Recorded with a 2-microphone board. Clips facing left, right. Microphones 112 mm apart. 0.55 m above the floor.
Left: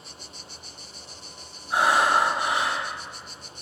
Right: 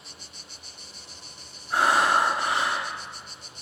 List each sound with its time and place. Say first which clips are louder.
1.7 s breathing: left 1 dB; 15° left (ahead or behind), 1.2 m